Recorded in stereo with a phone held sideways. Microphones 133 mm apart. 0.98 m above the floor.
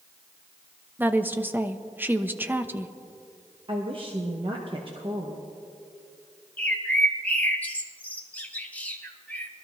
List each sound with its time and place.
1.0 s a woman speaking: 15° right (ahead or behind), 0.6 m
3.7 s a woman speaking: 45° right (ahead or behind), 1.1 m
6.6 s a bird: 10° left (ahead or behind), 1.3 m